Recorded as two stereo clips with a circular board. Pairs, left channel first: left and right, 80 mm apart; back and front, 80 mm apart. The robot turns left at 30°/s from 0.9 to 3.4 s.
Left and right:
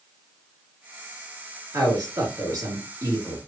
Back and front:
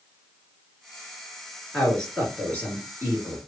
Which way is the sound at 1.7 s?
95° right.